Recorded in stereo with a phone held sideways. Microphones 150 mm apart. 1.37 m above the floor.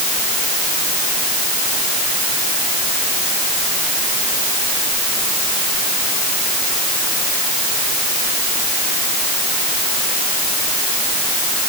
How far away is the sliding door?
No sliding door in this recording.